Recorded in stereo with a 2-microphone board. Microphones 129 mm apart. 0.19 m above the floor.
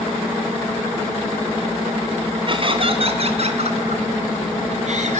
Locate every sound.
2.5 s laughter: 40° right (ahead or behind), 2 m; by 5.2 s 65° right (ahead or behind), 3.5 m